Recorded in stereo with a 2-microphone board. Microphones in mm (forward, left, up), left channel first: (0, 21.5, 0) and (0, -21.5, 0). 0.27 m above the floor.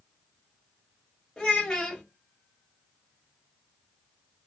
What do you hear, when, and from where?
1.4 s a child speaking: 10° left (ahead or behind), 0.6 m